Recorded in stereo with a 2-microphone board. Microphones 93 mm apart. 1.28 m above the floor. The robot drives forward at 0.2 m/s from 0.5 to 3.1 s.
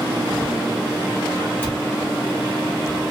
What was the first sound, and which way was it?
A cupboard door, 25° left (ahead or behind).